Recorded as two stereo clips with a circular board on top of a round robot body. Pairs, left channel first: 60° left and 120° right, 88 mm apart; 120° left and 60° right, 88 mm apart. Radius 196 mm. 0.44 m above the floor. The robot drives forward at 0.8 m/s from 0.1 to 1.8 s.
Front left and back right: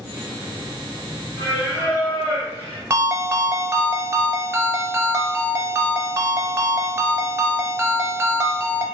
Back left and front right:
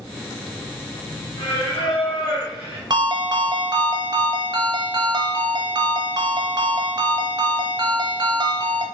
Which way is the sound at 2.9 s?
70° right.